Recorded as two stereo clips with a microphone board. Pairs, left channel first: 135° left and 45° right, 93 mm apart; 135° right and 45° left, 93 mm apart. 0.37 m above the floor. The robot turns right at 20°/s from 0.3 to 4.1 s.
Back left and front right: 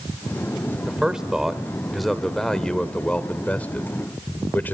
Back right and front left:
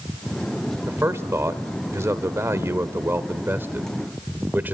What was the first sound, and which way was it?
A man speaking, 25° left.